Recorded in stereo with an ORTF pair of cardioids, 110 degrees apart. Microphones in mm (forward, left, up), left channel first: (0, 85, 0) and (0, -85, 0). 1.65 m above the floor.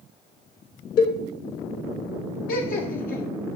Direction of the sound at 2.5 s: 55° left.